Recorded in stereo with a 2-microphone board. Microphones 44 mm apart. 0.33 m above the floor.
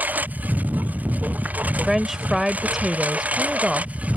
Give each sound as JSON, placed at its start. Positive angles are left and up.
{"t": 0.0, "sound": "a lawn mower", "side_deg": -45}
{"t": 1.7, "sound": "a woman speaking", "side_deg": -10}